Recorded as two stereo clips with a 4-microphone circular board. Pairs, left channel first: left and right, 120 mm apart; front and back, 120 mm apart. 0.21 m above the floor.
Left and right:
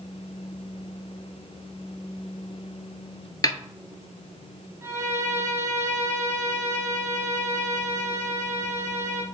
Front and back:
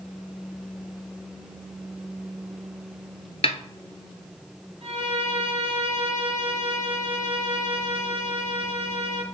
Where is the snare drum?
35° left, 0.7 m.